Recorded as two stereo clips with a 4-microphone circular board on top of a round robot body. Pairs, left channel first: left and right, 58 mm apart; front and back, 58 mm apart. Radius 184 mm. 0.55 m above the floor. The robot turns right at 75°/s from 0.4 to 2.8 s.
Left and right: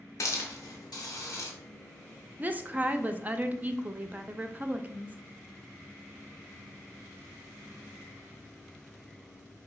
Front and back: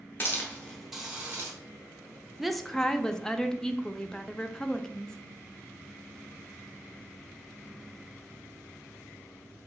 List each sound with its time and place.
0.2 s a hiss: 55° left, 0.8 m; by 1.5 s 135° left, 0.8 m
2.4 s a woman speaking: 100° right, 0.6 m; by 5.2 s 70° right, 0.6 m